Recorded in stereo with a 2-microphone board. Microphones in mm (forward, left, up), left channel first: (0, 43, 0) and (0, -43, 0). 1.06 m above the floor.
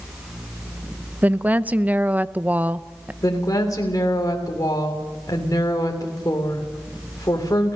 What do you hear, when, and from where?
1.2 s a woman speaking: 15° right (ahead or behind), 0.7 m
3.2 s a woman speaking: 40° left (ahead or behind), 3 m